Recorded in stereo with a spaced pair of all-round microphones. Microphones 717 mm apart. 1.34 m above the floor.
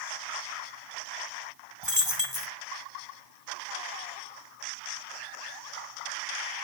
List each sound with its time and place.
1.8 s a dropped coin: 40° left (ahead or behind), 2.5 m